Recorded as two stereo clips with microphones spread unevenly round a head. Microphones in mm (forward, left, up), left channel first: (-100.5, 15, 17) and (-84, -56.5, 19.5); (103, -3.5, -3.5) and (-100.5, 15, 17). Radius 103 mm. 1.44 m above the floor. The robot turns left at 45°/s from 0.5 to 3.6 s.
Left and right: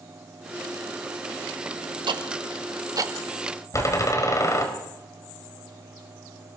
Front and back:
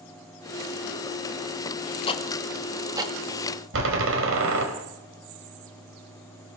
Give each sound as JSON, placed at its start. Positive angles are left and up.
{"t": 2.1, "sound": "ticking", "azimuth_deg": -70, "distance_m": 2.0}
{"t": 3.7, "sound": "a door slam", "azimuth_deg": 150, "distance_m": 5.0}